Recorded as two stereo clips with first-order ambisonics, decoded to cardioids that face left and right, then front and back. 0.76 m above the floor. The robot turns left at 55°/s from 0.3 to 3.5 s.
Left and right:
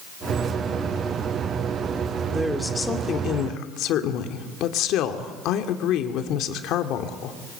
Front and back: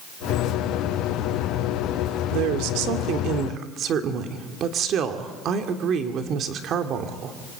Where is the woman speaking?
165° right, 2.5 m; by 7.4 s 130° left, 2.5 m.